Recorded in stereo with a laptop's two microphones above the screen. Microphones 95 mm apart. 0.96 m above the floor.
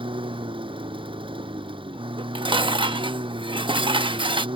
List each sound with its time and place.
0.0 s a lawn mower: 65° right (ahead or behind)
2.2 s dishes clattering: 60° right (ahead or behind)